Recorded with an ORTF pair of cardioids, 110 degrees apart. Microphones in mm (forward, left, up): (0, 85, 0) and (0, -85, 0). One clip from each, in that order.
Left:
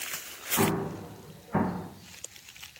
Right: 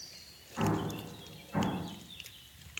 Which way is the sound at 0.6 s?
45° left.